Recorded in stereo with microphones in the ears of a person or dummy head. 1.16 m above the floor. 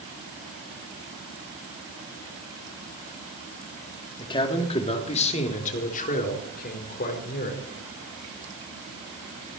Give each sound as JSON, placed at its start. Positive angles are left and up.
{"t": 4.2, "sound": "a man speaking", "side_deg": 20, "distance_m": 2.5}